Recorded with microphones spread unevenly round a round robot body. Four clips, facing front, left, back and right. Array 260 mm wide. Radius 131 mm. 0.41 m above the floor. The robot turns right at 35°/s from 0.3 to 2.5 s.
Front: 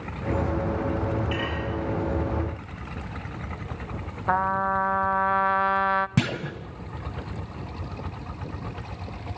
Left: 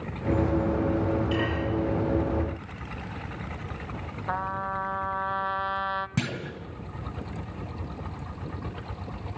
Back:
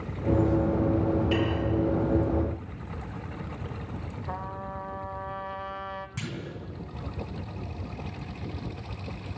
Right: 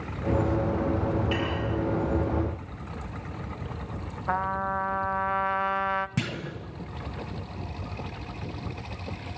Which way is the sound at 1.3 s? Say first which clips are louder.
Left 1 dB, back 3 dB; straight behind.